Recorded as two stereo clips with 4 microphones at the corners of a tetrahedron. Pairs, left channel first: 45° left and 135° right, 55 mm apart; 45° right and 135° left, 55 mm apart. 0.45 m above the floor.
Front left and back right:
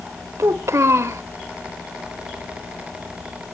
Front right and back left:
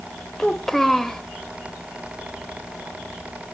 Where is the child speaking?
130° right, 1.0 m.